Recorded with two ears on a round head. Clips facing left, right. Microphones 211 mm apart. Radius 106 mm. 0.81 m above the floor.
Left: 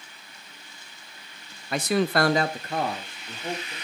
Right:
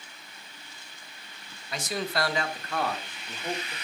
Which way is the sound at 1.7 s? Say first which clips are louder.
Left 8 dB; 45° left (ahead or behind).